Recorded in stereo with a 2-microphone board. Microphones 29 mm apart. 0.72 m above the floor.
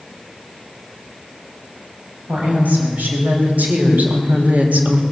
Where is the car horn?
I don't hear a car horn.